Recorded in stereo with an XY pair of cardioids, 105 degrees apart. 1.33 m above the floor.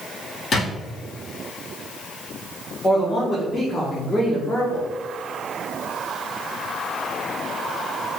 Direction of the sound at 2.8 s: 35° left.